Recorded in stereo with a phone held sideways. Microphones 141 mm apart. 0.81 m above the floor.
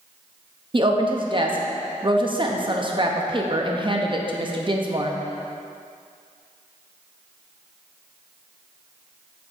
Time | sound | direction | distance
0.7 | a woman speaking | 35° right (ahead or behind) | 0.7 m